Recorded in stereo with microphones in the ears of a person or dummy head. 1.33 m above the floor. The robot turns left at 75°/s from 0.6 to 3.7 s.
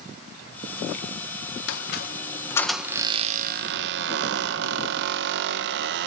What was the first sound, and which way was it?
A squeak, 80° left.